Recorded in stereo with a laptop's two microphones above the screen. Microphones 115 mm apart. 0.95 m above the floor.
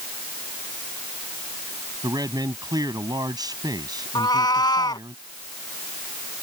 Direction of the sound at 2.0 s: 40° right (ahead or behind).